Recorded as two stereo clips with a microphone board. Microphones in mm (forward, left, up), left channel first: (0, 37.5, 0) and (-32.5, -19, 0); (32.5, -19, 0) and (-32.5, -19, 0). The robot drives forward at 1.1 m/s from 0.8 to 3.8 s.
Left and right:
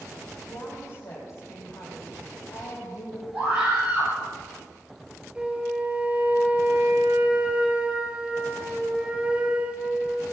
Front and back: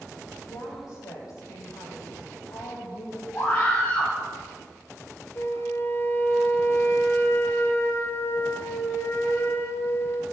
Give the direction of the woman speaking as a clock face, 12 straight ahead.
11 o'clock.